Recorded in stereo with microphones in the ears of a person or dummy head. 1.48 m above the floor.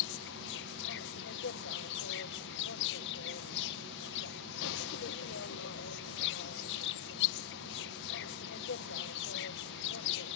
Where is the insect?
65° left (ahead or behind).